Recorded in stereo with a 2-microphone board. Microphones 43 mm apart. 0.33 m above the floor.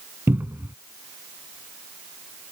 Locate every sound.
0.3 s a cupboard door: 60° right (ahead or behind)